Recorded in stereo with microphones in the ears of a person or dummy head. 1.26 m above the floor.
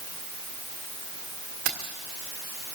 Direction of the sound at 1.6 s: 55° right (ahead or behind).